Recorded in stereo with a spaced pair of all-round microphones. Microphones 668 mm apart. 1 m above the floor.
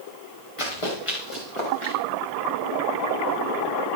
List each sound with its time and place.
0.6 s running footsteps: 50° left (ahead or behind), 7.5 m; by 1.9 s 45° left (ahead or behind), 8.5 m